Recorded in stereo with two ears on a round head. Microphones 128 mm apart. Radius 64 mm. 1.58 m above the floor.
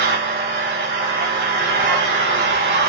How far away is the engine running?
About 5.5 m.